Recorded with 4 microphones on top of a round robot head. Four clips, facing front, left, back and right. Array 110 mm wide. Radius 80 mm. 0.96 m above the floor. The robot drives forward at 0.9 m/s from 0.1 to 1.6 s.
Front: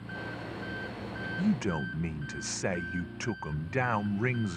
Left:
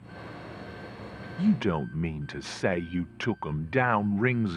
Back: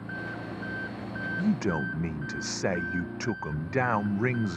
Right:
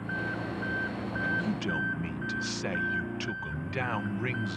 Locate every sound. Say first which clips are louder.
0.0 s an engine running: right 9 dB, back 3 dB; 120° right
1.4 s a man speaking: left 5 dB, back 2 dB; 95° left; by 4.6 s 115° left